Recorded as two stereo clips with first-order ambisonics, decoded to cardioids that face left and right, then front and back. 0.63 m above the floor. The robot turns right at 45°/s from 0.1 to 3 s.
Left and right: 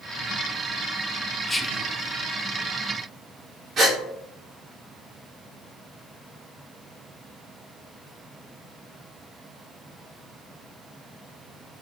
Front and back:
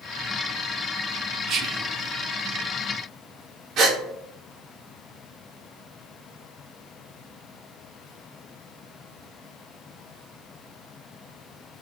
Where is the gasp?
145° right, 2.0 m.